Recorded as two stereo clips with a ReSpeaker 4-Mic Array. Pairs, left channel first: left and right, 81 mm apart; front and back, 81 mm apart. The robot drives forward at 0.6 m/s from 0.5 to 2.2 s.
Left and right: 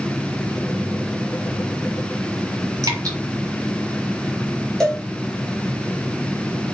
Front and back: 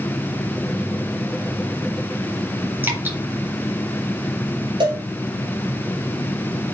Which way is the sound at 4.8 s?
175° left.